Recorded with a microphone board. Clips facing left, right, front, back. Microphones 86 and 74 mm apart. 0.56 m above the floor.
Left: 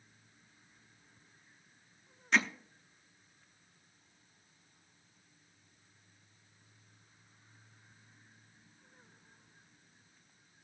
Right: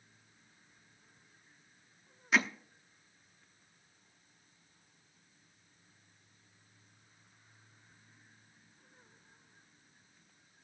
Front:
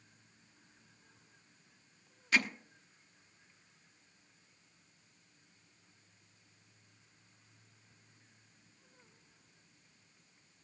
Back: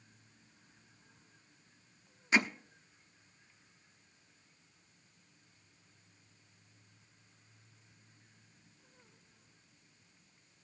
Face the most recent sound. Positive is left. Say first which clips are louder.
# even, back 2 dB
turn(degrees=-165)